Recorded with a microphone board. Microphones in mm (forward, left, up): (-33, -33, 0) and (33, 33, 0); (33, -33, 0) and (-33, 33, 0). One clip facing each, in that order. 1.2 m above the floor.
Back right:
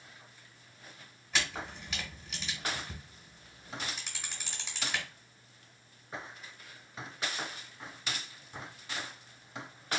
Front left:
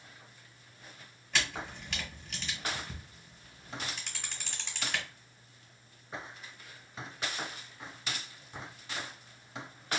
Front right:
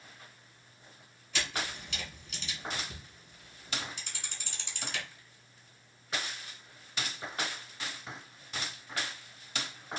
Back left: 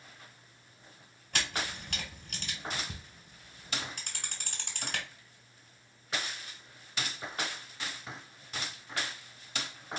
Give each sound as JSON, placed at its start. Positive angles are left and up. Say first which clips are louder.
{"t": 1.3, "sound": "a camera shutter", "louder": "even, back left 1 dB", "azimuth_deg": 140, "distance_m": 1.5}